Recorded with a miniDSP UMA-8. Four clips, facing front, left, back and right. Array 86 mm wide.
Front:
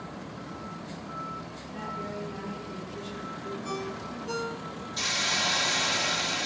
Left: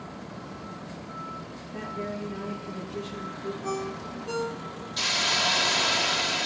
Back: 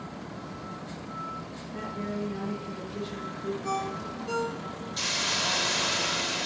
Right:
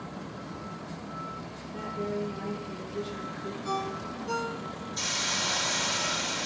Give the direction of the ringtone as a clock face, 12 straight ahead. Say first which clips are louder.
Right 2 dB, back 3 dB; 8 o'clock.